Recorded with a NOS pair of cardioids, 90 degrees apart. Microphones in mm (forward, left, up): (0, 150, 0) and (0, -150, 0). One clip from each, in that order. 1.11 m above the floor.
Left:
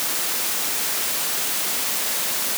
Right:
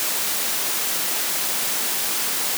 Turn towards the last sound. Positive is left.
No sound to turn to.